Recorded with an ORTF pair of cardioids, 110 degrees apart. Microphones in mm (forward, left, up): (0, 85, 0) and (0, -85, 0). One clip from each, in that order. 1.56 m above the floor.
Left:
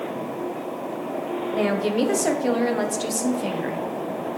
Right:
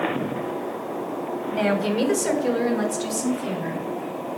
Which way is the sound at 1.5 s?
Straight ahead.